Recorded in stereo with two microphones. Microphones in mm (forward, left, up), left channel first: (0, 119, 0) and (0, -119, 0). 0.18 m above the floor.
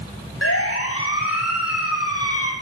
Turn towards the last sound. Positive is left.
turn(degrees=75)  # may be behind; listen again after turning